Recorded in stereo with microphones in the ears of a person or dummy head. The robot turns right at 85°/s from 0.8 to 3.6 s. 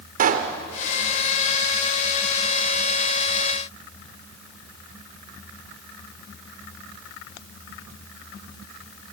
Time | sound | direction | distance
0.2 | a pop | 50° right (ahead or behind) | 1.6 m